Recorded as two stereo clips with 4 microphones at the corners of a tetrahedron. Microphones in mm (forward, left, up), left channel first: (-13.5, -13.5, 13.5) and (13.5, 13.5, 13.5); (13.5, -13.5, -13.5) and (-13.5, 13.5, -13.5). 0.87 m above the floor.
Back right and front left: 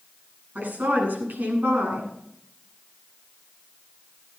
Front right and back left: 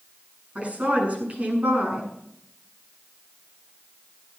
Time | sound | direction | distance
0.6 | a woman speaking | 80° left | 9 m